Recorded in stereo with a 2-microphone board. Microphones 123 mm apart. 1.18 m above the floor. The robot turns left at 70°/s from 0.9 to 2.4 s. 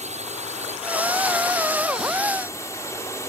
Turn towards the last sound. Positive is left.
turn(degrees=155)